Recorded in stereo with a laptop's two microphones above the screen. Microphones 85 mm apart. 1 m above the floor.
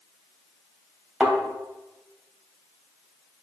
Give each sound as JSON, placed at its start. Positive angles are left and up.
{"t": 1.2, "sound": "a thud", "side_deg": -10, "distance_m": 2.5}